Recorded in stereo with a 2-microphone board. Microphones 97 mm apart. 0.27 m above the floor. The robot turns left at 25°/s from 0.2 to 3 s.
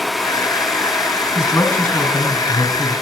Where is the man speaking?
40° left, 2.5 m; by 2.9 s straight ahead, 2.5 m.